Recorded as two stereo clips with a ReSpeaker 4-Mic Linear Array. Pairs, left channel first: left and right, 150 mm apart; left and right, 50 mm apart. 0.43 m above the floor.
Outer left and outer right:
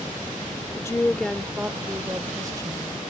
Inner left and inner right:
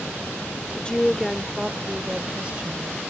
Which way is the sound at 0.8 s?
25° left (ahead or behind).